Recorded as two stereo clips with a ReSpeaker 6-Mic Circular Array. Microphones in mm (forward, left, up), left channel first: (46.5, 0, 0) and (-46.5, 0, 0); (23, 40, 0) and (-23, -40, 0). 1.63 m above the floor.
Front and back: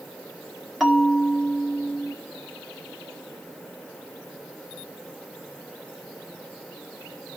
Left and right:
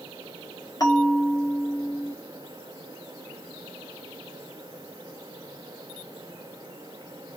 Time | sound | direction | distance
0.8 | a bell | 90° left | 1.5 m